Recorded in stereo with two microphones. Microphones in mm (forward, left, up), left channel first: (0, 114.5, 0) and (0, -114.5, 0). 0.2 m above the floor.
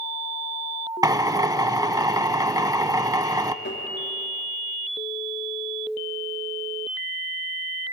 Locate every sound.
1.0 s a drill: 15° right (ahead or behind), 0.5 m
3.6 s tapping: 45° left (ahead or behind), 3.5 m